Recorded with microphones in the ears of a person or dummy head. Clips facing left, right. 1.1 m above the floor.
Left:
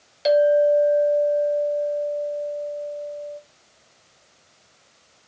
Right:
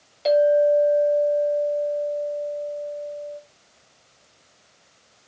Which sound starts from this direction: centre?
A clink, at 0.2 s.